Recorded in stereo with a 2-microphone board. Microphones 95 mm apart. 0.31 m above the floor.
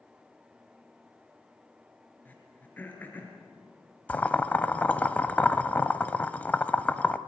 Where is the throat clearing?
20° left (ahead or behind), 3.5 m.